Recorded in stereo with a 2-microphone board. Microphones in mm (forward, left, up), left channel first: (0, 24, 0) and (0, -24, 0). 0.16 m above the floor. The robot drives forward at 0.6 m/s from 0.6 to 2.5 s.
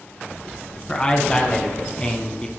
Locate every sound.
0.9 s a man speaking: 20° left (ahead or behind), 1.7 m